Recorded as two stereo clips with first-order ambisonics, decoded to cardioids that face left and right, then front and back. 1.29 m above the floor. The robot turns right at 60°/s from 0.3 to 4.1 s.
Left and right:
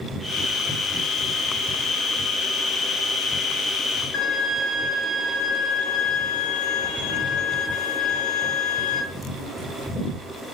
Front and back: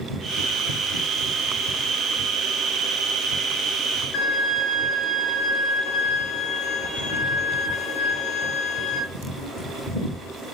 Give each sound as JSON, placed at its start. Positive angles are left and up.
{"t": 4.1, "sound": "a violin", "azimuth_deg": 40, "distance_m": 1.9}